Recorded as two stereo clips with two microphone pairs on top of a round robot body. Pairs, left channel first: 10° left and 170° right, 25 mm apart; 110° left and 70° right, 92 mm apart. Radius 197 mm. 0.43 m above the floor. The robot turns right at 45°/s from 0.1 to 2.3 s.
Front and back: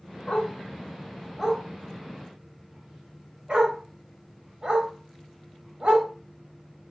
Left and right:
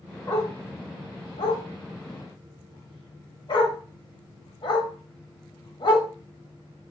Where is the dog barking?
55° left, 1.4 m; by 6.1 s 145° left, 1.4 m.